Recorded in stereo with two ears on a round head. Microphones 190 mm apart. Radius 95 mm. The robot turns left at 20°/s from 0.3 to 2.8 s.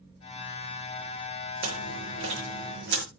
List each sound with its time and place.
1.6 s chewing: 80° right, 6.5 m; by 3.0 s 60° right (ahead or behind), 6.5 m